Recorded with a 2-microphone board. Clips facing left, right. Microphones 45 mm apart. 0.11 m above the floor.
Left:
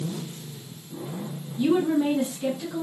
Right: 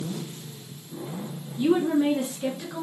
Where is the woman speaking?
20° right (ahead or behind), 1.5 m; by 2.8 s 30° right (ahead or behind), 1.8 m.